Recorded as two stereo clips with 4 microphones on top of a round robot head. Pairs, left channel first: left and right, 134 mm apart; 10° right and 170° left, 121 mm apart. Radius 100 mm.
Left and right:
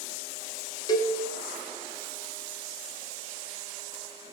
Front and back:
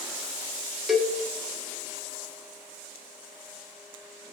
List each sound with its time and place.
0.9 s a cowbell: 80° left, 1.2 m